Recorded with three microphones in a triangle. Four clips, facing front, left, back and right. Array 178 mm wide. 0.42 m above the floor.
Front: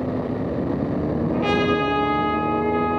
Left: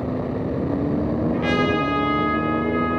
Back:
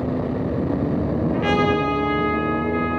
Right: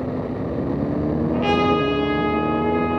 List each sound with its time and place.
1.3 s a trumpet: 135° right, 4.5 m